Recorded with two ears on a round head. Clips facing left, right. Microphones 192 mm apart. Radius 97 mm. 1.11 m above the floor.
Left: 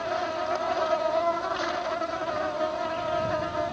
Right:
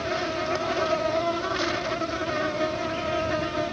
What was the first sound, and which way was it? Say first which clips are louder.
An insect: right 1 dB; 35° right (ahead or behind).